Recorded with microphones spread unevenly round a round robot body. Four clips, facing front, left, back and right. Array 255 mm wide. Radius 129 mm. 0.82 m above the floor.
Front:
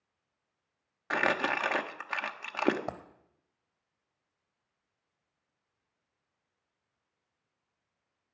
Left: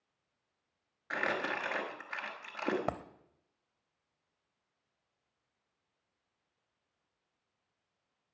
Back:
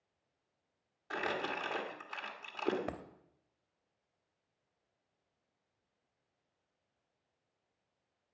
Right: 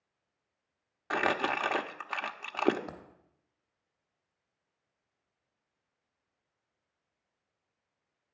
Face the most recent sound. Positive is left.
turn(degrees=115)